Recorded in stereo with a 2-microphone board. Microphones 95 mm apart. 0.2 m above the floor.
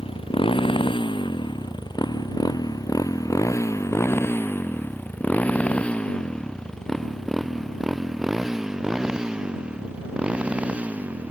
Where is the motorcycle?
65° left (ahead or behind); by 11.3 s 15° right (ahead or behind).